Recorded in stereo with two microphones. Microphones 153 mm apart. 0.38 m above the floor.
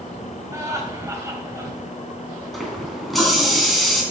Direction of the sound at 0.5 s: 20° right (ahead or behind).